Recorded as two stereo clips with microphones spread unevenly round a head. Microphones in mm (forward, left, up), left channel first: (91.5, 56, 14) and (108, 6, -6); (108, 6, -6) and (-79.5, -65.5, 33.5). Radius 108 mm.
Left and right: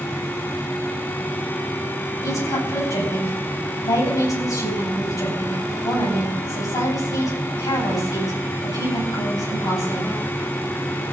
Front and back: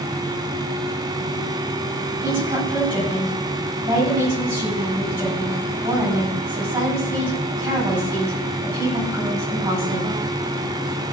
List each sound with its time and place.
2.2 s a woman speaking: 125° left, 9.5 m